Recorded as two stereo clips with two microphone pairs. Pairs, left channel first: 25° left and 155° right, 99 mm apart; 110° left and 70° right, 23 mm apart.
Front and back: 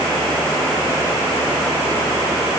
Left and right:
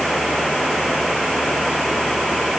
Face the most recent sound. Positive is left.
No sound to turn to.